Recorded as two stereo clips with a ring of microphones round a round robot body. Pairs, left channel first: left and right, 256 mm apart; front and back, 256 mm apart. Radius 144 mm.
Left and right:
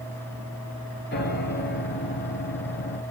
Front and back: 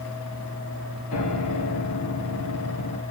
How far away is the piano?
About 2.5 m.